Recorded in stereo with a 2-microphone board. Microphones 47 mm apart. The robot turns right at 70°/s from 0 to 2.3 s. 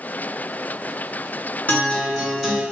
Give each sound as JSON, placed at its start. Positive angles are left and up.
{"t": 1.7, "sound": "a guitar", "azimuth_deg": 140, "distance_m": 1.8}